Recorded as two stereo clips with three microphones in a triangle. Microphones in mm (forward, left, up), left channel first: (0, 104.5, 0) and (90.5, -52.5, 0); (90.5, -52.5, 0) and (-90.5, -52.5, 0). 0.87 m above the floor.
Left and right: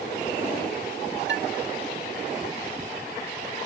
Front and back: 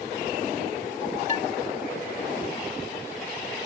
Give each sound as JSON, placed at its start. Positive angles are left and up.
{"t": 1.3, "sound": "dishes clattering", "azimuth_deg": -50, "distance_m": 1.3}